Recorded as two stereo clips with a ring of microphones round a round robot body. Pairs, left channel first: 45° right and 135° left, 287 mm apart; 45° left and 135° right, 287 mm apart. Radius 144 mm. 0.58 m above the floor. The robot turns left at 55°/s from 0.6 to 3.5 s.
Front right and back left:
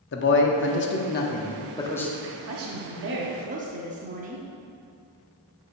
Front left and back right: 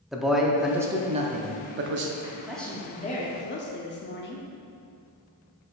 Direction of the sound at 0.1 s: 45° right.